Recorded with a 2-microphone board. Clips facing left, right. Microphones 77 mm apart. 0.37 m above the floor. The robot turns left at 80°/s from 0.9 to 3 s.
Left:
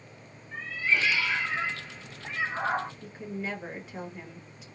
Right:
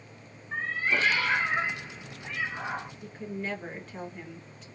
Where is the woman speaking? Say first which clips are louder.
Even; 5° left (ahead or behind), 1.6 m.